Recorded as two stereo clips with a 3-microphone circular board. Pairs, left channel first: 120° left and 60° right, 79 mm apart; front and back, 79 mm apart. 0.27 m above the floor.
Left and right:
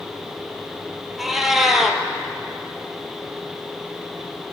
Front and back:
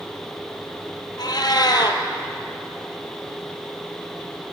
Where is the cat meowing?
30° left, 1.2 m.